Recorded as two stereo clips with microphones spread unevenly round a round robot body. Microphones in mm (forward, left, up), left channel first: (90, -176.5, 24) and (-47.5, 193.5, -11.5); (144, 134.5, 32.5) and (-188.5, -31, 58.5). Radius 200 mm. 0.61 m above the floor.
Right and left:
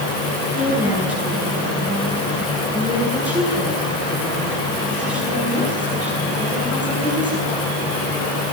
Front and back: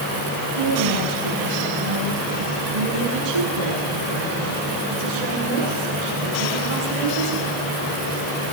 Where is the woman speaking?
165° right, 10 m.